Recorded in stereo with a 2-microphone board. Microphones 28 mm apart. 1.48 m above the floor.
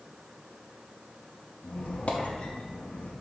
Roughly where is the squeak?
Left.